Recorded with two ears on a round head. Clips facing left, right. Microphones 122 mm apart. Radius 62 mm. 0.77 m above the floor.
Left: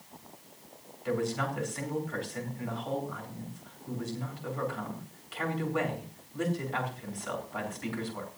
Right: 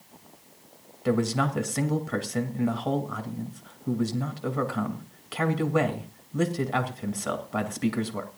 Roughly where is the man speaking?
Right.